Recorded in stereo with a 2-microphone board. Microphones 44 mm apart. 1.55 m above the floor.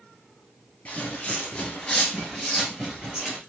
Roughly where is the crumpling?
No crumpling in this recording.